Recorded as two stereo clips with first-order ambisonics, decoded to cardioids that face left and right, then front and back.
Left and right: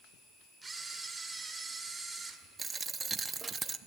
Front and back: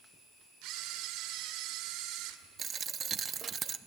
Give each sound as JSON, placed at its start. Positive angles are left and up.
{"t": 0.6, "sound": "a camera shutter", "azimuth_deg": -170, "distance_m": 1.7}
{"t": 2.6, "sound": "a dropped coin", "azimuth_deg": -150, "distance_m": 0.6}